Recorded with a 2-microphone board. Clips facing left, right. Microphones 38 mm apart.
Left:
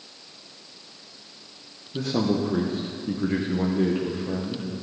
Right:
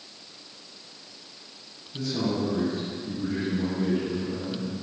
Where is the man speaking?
50° left (ahead or behind), 1.0 m.